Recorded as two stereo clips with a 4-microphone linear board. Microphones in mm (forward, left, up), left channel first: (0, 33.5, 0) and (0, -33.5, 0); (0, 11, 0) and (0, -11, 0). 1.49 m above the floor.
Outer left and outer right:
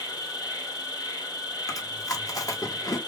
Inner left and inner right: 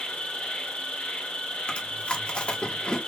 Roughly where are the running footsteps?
No running footsteps in this recording.